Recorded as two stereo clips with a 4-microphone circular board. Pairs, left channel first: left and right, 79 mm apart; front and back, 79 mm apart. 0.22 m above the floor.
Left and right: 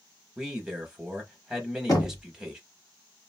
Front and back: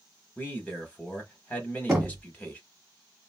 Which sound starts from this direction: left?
Knocking, at 1.9 s.